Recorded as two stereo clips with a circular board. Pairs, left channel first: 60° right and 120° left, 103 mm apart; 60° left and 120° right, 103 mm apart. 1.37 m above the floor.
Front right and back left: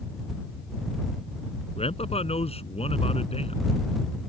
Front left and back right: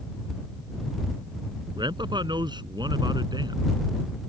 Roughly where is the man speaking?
Right.